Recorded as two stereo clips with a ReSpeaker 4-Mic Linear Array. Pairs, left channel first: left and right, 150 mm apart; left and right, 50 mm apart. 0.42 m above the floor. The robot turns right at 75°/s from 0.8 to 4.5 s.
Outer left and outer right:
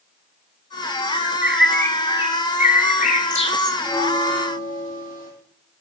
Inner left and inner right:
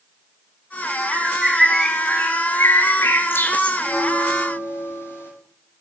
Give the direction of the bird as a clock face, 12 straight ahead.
1 o'clock.